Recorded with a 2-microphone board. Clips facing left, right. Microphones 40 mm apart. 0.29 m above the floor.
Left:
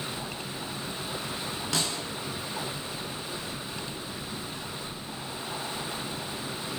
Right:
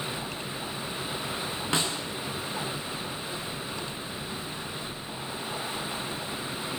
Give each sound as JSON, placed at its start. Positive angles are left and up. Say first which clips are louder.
{"t": 1.7, "sound": "a snare drum", "louder": "right 2 dB", "side_deg": -25, "distance_m": 4.5}